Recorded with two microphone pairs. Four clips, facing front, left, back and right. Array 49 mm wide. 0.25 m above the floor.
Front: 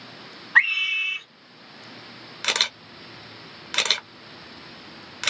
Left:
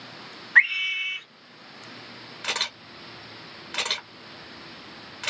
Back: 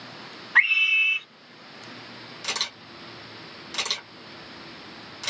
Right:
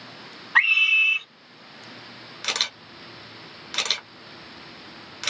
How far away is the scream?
About 1.9 m.